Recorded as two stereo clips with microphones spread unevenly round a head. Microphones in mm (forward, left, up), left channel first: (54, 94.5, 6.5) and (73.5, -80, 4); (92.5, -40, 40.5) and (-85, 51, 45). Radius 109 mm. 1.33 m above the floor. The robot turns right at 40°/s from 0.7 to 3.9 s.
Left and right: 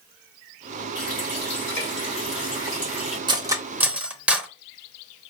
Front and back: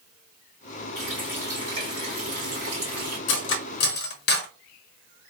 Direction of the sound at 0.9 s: 60° left.